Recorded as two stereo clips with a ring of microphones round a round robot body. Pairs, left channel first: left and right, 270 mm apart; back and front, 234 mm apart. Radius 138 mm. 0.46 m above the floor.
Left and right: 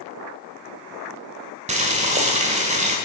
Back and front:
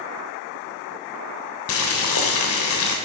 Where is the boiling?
155° right, 1.3 m.